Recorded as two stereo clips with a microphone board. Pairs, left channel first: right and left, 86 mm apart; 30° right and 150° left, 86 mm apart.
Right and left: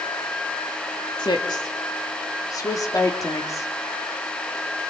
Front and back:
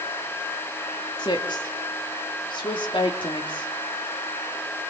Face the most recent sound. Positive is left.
turn(degrees=-40)